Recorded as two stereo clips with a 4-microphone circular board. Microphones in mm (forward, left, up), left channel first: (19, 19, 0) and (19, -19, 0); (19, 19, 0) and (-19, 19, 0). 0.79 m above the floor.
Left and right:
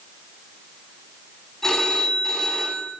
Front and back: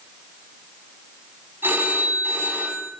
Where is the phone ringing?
170° left, 3.5 m.